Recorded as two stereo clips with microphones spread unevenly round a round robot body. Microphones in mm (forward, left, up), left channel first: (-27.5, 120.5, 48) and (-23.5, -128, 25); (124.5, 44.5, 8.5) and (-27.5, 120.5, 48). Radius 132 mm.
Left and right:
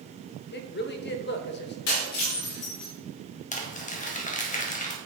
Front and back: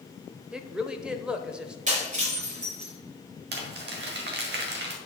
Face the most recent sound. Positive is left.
turn(degrees=150)